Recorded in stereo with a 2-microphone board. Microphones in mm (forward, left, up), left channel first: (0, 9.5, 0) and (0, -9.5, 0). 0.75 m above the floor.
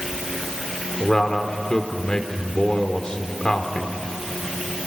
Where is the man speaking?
35° left (ahead or behind), 2 m.